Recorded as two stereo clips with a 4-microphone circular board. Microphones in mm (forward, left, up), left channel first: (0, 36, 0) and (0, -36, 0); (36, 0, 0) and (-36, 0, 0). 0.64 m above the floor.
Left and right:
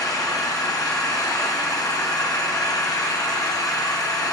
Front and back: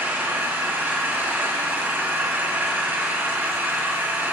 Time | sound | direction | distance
0.0 | an engine running | 115° left | 2.5 m